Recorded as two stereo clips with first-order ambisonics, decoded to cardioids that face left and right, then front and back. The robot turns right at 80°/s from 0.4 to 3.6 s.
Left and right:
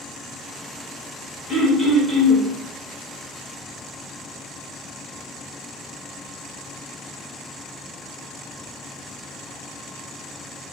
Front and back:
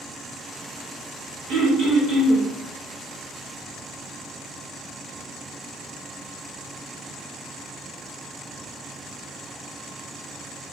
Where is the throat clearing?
145° left, 2.0 m; by 2.5 s 135° right, 2.0 m.